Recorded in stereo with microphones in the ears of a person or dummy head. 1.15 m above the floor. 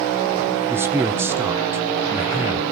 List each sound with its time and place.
0.7 s a man speaking: 15° right (ahead or behind), 0.7 m